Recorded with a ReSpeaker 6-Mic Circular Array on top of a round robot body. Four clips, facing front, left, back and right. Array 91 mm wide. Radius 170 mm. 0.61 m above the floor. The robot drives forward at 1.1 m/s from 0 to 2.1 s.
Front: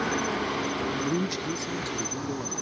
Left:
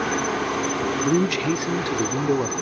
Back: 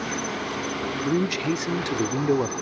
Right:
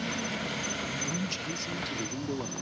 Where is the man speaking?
105° left; by 2.5 s 140° left.